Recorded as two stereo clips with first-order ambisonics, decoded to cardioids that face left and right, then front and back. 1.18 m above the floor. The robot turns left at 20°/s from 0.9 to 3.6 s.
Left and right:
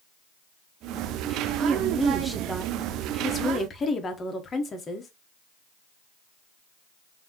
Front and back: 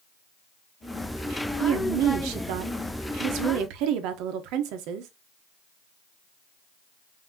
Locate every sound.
1.6 s a woman speaking: 160° right, 0.9 m; by 5.1 s 160° left, 0.9 m